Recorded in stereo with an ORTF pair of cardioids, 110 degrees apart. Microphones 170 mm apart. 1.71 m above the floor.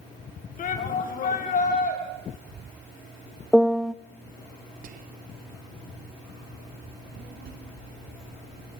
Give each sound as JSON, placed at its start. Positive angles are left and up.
{"t": 0.6, "sound": "a shout", "azimuth_deg": 55, "distance_m": 6.5}
{"t": 3.5, "sound": "a piano", "azimuth_deg": 0, "distance_m": 0.6}
{"t": 4.8, "sound": "whispering", "azimuth_deg": -55, "distance_m": 0.8}
{"t": 6.9, "sound": "a child speaking", "azimuth_deg": -65, "distance_m": 8.5}